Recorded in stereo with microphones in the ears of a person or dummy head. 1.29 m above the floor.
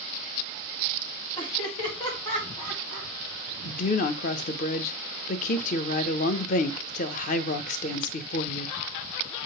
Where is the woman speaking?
40° left (ahead or behind), 0.7 m.